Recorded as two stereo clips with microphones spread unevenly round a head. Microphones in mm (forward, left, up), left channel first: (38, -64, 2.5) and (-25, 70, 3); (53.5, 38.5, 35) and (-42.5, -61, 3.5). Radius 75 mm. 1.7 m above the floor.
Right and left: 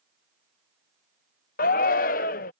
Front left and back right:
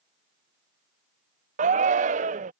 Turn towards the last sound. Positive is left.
turn(degrees=-95)